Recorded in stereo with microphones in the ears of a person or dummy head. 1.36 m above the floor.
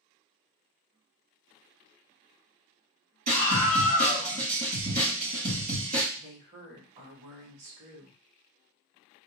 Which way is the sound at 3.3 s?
45° right (ahead or behind).